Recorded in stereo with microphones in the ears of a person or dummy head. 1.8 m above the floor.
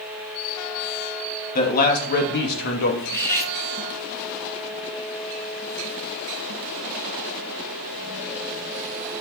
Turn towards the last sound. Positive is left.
turn(degrees=15)  # may be behind; listen again after turning